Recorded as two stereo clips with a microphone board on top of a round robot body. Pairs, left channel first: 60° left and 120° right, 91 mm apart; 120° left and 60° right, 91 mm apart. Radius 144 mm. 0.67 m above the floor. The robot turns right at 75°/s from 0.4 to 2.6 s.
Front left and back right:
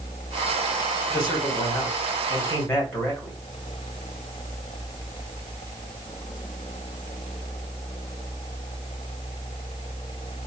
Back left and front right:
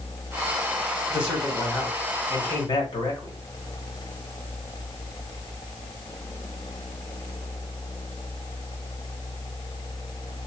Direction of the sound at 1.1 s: 10° left.